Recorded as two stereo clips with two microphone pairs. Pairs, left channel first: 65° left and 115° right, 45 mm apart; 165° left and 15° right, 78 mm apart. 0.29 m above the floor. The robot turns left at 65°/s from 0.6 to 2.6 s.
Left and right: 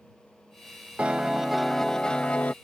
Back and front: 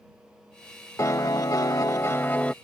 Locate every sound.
1.0 s a piano: 170° right; by 2.5 s 90° left